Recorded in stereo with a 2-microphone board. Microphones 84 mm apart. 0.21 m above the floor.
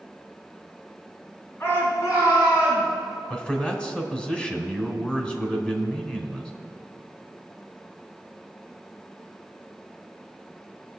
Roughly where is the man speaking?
Centre.